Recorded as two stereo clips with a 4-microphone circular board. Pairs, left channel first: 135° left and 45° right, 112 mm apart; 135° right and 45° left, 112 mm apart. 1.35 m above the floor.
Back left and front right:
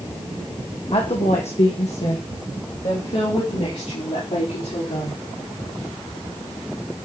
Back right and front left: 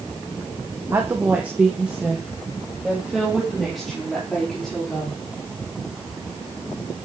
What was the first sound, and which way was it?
A woman speaking, 105° left.